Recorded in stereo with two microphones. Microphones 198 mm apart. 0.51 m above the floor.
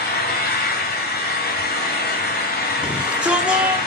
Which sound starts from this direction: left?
An engine running, at 0.0 s.